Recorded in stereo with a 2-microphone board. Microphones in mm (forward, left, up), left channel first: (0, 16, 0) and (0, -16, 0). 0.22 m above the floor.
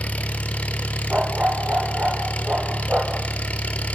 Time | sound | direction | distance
0.0 | an engine running | 55° left (ahead or behind) | 1.1 m
1.1 | a dog barking | 45° right (ahead or behind) | 2.5 m